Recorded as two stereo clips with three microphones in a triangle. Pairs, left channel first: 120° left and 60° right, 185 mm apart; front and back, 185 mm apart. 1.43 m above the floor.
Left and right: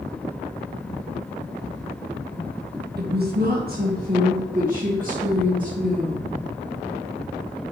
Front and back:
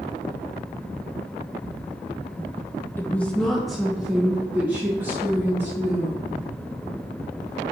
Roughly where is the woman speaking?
Right.